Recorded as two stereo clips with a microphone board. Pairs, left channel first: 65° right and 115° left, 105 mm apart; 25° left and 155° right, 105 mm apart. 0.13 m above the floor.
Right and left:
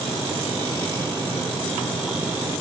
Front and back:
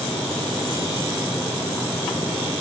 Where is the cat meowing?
No cat meowing in this recording.